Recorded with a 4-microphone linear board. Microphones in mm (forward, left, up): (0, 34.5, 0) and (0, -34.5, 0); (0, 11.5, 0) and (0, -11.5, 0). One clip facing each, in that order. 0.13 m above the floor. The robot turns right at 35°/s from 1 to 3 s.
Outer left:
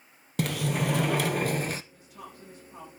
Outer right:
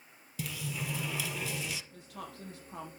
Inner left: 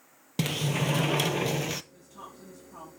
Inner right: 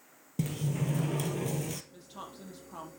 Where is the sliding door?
70° left (ahead or behind), 0.6 m; by 1.8 s 45° left (ahead or behind), 0.6 m.